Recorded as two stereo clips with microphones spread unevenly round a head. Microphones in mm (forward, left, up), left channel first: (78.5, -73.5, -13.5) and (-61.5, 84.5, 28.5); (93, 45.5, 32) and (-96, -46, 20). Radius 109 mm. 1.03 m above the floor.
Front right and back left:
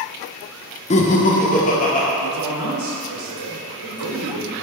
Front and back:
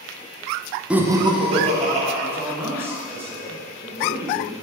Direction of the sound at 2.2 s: 125° left.